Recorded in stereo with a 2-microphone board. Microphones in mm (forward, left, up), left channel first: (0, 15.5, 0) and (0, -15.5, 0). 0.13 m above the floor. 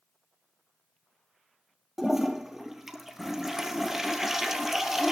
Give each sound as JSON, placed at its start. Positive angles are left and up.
{"t": 2.0, "sound": "a toilet flushing", "side_deg": -15, "distance_m": 1.3}